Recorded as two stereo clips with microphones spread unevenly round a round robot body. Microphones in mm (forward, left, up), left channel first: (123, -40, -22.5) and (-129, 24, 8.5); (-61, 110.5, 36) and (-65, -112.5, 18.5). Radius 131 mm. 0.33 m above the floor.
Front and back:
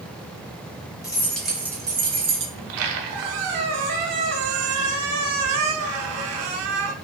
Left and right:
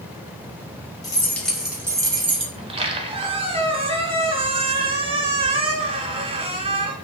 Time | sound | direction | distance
1.0 | keys jangling | 25° left | 0.8 m
2.5 | a squeak | 160° right | 0.6 m